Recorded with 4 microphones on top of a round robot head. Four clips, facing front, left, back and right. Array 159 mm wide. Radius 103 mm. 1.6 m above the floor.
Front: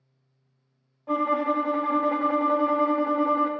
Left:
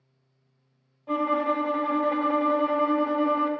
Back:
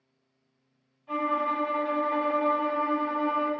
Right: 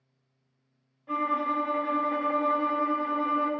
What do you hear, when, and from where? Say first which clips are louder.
1.1 s a violin: left 3 dB, front 4 dB; 30° left, 0.5 m